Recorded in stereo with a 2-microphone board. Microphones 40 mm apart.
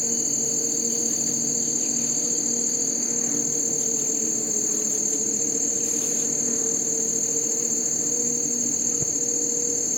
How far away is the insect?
About 2 m.